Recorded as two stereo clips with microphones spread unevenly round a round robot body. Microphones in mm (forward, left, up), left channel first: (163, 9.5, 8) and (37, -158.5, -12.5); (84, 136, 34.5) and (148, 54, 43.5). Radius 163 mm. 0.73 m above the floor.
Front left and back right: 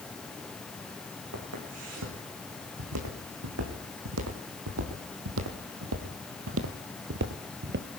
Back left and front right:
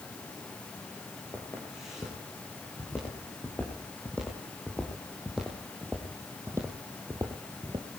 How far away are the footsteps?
About 4 m.